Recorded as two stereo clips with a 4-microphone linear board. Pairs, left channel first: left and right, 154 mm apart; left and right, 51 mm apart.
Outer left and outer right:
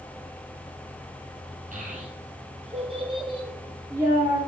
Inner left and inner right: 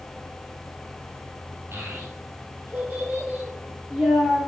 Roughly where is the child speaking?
Right.